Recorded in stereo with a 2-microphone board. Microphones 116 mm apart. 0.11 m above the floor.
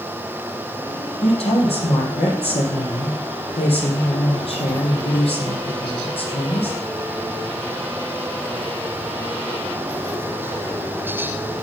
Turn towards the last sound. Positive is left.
turn(degrees=60)  # may be behind; listen again after turning